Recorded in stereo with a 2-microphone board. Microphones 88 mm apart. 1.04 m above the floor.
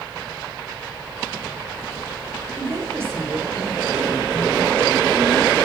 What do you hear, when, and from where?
2.6 s a woman speaking: 30° right (ahead or behind), 2.5 m